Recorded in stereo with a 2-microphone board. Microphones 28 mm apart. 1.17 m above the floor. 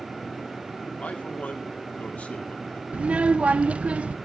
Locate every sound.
1.0 s a man speaking: 65° left (ahead or behind), 3 m
2.9 s a child speaking: 50° right (ahead or behind), 0.6 m